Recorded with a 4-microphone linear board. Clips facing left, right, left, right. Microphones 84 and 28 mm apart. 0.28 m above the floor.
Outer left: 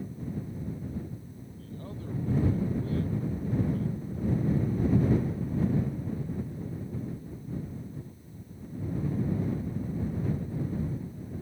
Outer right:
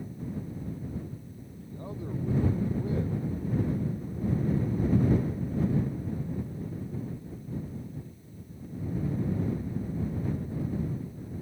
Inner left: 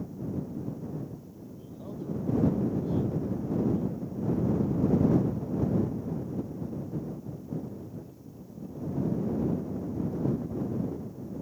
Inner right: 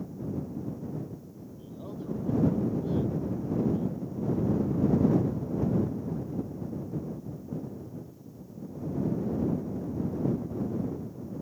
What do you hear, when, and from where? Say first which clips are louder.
1.6 s a man speaking: outer right 3 dB, even; 15° right (ahead or behind)